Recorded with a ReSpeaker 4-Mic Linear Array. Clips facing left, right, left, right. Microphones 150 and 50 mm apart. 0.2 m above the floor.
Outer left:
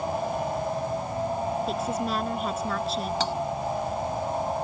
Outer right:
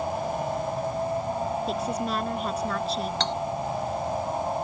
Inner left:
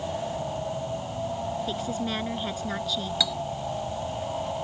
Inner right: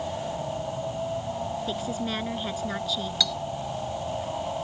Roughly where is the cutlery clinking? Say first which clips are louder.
Outer left 2 dB, even; centre.